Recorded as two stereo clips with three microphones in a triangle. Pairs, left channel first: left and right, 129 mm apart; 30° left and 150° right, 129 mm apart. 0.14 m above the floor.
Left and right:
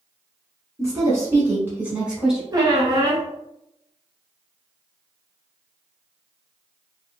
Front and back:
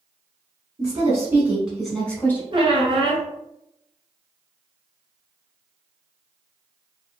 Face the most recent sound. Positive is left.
turn(degrees=-135)